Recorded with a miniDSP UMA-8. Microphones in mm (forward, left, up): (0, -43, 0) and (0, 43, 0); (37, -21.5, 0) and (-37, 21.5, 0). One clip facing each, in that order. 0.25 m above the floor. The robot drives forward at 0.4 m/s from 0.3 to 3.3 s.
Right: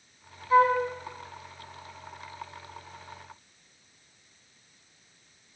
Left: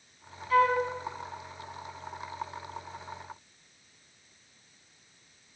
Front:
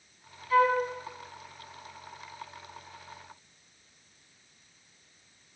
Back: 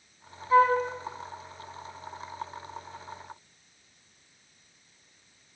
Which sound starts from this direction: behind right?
A flute, at 0.5 s.